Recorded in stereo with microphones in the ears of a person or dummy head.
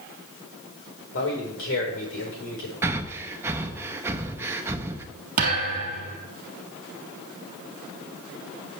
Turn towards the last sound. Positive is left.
turn(degrees=-40)  # may be behind; listen again after turning